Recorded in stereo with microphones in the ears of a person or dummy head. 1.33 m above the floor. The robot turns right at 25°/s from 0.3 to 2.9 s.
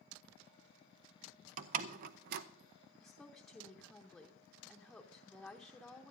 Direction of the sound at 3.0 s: 5° left (ahead or behind).